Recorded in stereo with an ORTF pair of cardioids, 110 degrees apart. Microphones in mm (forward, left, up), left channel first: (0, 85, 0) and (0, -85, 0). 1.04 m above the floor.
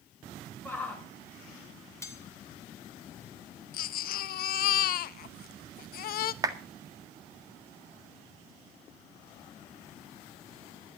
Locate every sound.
0.7 s a shout: 10° left, 4 m
2.0 s cutlery clinking: 15° left, 2.5 m
3.7 s a baby crying: 60° left, 0.8 m
6.4 s a clap: 20° right, 1.6 m